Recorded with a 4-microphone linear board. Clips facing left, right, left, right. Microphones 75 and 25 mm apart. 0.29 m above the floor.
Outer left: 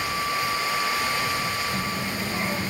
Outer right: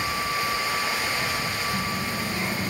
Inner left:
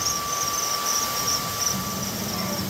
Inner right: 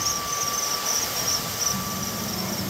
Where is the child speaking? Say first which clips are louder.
Even, even; 25° left (ahead or behind), 0.9 m.